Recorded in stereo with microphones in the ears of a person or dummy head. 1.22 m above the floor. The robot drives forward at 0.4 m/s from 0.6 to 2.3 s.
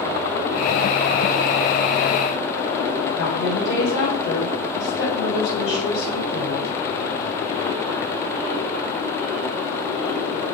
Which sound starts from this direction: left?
A woman speaking, at 3.1 s.